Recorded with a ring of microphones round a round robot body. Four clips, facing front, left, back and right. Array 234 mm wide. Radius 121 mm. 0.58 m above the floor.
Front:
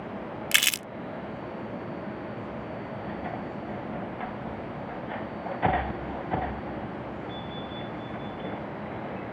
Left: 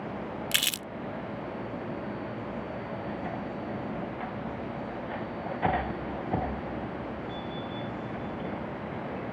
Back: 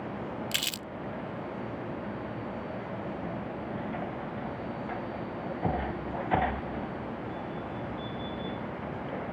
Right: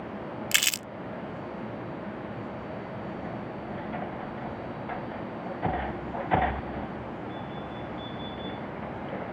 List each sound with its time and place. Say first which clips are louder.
0.5 s crumpling: right 2 dB, front 7 dB; 20° right